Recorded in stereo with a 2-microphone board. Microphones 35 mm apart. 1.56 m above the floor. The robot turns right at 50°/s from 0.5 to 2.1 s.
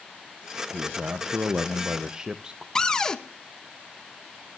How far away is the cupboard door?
About 0.8 m.